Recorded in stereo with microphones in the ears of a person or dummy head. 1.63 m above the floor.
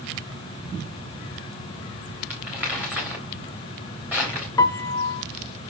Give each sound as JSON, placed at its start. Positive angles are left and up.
{"t": 2.3, "sound": "crumpling", "side_deg": -5, "distance_m": 2.5}
{"t": 4.6, "sound": "a piano", "side_deg": 15, "distance_m": 0.6}